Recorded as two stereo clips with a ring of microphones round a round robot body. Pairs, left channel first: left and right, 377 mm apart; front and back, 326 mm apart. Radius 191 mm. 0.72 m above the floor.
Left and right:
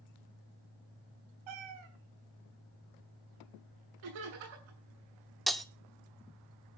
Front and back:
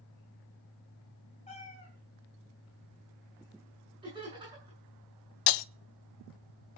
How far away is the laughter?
About 7.5 m.